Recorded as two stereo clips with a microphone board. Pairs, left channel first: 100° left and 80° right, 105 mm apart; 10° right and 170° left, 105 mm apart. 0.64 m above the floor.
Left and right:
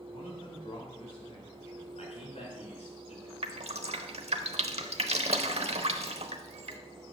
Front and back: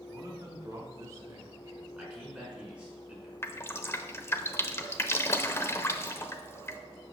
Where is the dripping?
75° right, 0.8 m.